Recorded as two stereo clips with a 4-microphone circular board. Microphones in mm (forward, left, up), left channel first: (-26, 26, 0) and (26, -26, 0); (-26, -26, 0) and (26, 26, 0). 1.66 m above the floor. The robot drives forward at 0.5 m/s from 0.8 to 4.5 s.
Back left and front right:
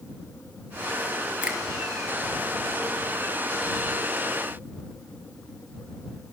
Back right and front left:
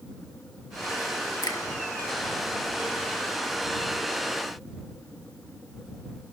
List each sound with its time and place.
1.4 s a finger snap: 115° right, 2.0 m; by 1.6 s 120° right, 2 m